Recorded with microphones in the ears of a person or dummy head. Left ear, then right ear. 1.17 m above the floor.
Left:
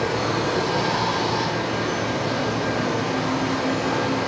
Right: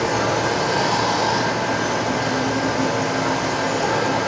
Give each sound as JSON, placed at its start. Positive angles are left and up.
{"t": 0.0, "sound": "running water", "side_deg": -65, "distance_m": 6.0}